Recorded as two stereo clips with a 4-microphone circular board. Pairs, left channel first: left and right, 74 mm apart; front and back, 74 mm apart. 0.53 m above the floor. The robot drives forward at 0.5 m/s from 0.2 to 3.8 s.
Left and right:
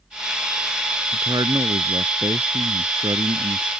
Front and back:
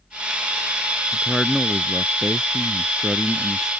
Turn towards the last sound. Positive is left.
turn(degrees=-95)